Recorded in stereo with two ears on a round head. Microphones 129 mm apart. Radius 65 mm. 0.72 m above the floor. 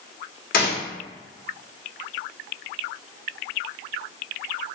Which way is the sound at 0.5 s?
70° left (ahead or behind).